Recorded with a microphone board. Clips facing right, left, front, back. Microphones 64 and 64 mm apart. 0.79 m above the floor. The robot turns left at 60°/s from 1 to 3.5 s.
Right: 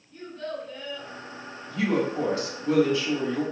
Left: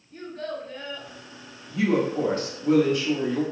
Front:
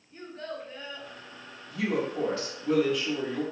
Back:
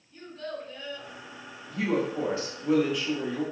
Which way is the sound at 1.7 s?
165° left.